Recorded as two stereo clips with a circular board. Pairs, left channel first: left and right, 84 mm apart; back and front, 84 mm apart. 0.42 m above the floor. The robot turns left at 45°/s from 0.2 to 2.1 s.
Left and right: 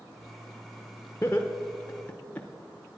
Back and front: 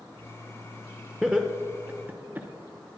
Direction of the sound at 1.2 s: 75° left.